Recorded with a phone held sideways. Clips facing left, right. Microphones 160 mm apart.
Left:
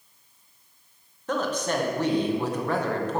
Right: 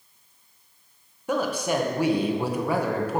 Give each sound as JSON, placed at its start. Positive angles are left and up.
{"t": 1.3, "sound": "a woman speaking", "side_deg": -10, "distance_m": 0.9}